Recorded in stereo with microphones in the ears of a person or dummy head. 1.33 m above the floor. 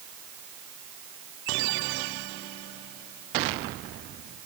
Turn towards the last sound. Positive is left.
No sound to turn to.